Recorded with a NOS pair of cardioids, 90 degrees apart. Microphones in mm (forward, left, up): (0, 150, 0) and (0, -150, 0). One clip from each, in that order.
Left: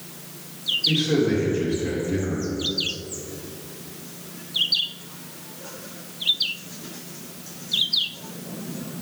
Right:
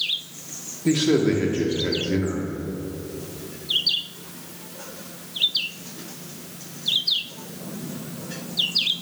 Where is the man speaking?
70° right, 1.8 m.